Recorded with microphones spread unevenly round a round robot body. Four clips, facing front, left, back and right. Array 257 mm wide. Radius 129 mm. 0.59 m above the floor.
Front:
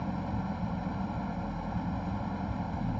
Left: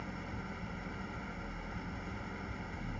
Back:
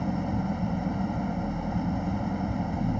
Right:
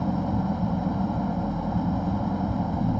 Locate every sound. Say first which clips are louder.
0.0 s an engine running: right 18 dB, back 6 dB; 115° right